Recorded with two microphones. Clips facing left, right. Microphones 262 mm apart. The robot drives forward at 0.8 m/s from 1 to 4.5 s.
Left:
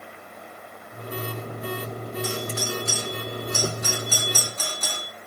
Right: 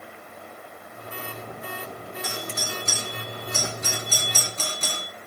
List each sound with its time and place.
2.2 s a doorbell: 20° right (ahead or behind), 4.5 m; by 5.1 s 25° right (ahead or behind), 3 m